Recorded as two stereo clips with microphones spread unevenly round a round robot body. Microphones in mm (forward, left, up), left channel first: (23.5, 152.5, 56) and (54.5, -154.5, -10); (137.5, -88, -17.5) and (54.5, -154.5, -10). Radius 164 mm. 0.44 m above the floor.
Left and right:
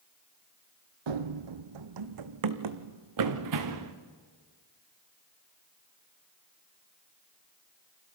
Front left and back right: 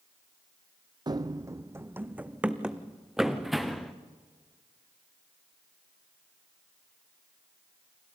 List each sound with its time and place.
1.1 s running footsteps: 95° right, 0.8 m; by 3.9 s 50° right, 2 m